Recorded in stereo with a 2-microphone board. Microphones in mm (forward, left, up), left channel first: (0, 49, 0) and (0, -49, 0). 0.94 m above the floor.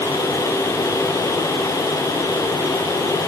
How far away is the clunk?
No clunk in this recording.